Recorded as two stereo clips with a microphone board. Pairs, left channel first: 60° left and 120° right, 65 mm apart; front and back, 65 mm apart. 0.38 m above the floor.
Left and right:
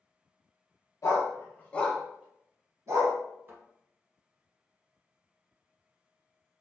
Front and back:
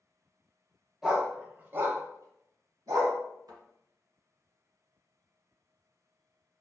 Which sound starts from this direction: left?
A dog barking, at 1.0 s.